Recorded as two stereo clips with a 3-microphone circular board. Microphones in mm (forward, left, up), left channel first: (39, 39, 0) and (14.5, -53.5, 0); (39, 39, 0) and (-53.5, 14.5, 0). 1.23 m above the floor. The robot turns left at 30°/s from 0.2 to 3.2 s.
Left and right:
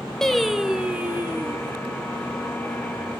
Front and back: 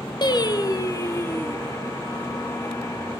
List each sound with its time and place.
0.2 s singing: 10° right, 0.9 m; by 1.6 s 50° right, 0.9 m